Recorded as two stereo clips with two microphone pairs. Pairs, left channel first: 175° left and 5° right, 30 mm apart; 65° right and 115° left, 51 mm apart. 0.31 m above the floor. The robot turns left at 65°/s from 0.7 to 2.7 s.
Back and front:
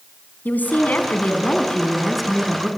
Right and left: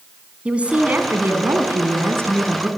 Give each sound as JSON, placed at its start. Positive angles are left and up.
{"t": 0.5, "sound": "a woman speaking", "azimuth_deg": 180, "distance_m": 3.5}